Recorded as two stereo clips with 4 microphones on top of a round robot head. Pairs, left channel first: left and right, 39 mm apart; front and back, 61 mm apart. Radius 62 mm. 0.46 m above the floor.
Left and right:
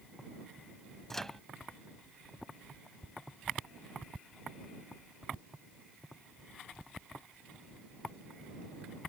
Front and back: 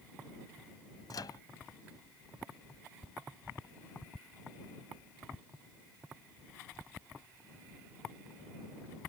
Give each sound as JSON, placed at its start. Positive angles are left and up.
{"t": 1.1, "sound": "a microwave", "azimuth_deg": 10}